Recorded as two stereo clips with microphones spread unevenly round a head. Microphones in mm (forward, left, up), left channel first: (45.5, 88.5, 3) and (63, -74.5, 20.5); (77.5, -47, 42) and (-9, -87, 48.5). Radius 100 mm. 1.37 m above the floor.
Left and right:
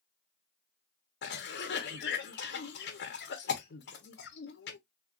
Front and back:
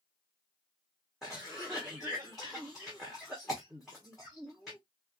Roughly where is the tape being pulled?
I don't hear tape being pulled.